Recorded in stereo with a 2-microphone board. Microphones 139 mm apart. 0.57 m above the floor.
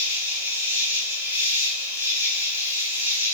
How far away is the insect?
About 3 m.